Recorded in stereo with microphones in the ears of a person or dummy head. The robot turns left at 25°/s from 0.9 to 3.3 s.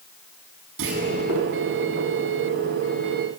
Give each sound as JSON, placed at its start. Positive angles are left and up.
{"t": 0.8, "sound": "a clunk", "side_deg": -70, "distance_m": 7.5}